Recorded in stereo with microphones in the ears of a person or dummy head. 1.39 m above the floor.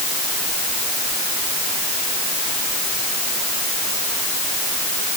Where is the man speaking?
No man speaking in this recording.